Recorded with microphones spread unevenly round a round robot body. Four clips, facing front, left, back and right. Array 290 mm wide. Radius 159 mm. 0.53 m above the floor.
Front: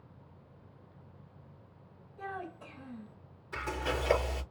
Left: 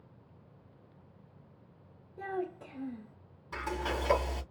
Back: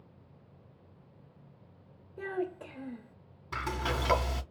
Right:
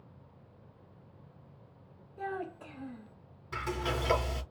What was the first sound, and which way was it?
A child speaking, 165° left.